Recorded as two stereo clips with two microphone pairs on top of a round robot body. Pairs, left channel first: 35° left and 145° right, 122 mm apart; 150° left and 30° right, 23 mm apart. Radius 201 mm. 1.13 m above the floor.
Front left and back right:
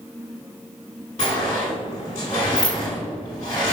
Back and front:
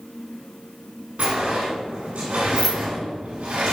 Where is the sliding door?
5° right, 1.2 m.